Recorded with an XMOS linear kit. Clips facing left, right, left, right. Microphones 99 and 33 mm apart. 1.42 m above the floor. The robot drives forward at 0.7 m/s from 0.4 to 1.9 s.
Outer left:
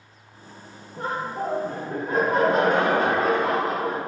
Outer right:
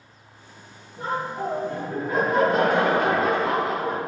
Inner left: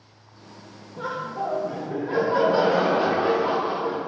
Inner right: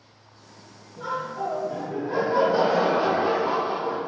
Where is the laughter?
50° left (ahead or behind), 0.6 m; by 4.0 s 35° left (ahead or behind), 0.9 m.